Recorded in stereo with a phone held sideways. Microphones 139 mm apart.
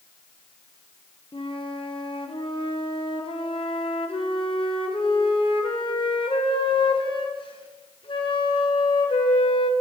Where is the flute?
40° left (ahead or behind), 0.8 m.